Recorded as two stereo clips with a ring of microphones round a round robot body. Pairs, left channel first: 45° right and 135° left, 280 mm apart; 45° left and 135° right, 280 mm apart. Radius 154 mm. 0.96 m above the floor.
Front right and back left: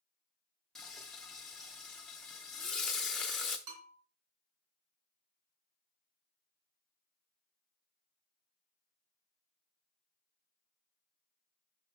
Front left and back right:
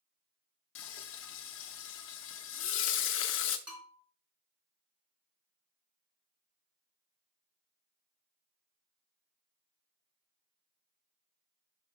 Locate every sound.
0.8 s frying: 45° left, 0.5 m
3.7 s a bell: 140° left, 3.5 m